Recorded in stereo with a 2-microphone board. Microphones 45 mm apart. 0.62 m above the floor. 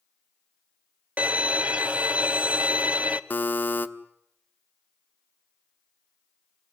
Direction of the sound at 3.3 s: 40° left (ahead or behind).